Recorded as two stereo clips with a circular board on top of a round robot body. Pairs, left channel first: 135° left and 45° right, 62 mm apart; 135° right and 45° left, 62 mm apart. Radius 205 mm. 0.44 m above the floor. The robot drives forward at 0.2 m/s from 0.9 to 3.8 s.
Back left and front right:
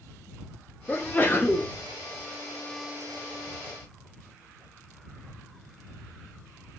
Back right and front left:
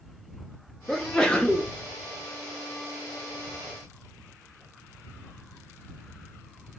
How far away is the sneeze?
About 0.7 m.